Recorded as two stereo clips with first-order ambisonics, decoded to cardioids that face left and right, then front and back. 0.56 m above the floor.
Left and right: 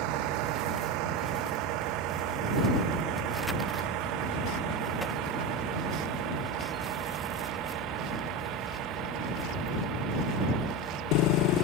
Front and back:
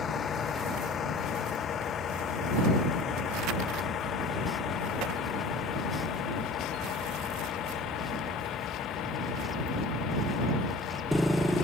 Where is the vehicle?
65° right; by 11.7 s 45° right.